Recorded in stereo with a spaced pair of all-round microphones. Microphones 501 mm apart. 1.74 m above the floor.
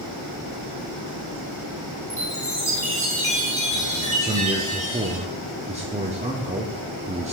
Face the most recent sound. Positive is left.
turn(degrees=-15)  # may be behind; listen again after turning